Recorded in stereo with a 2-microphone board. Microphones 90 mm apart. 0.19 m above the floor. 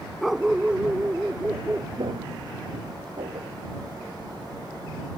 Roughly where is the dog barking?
Centre.